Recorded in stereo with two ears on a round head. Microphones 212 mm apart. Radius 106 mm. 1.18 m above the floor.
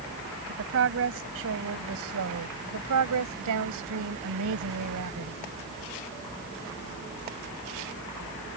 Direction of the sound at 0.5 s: 55° right (ahead or behind).